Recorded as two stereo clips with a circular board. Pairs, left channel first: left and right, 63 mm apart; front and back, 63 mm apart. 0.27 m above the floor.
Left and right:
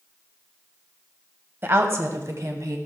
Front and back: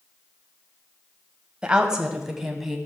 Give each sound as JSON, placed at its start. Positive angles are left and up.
{"t": 1.6, "sound": "a woman speaking", "azimuth_deg": -115, "distance_m": 1.1}